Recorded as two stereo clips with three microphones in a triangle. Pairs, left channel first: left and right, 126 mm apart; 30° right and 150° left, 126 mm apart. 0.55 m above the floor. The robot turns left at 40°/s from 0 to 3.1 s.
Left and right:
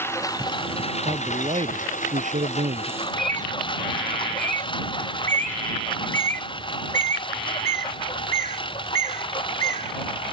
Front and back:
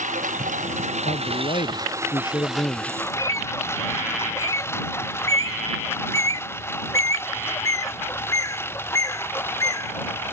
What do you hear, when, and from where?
0.0 s a lawn mower: 165° left; by 10.3 s 40° left
1.1 s a man speaking: 35° right; by 2.9 s 110° right
3.0 s a bird: 90° right; by 10.3 s 95° right